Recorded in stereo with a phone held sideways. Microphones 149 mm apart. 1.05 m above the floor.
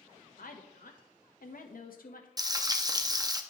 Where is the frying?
30° right (ahead or behind), 0.6 m.